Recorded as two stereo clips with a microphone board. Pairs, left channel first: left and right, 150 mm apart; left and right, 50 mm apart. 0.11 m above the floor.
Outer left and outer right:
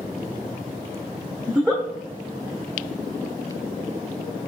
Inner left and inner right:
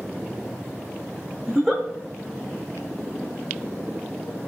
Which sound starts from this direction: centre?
A giggle, at 1.5 s.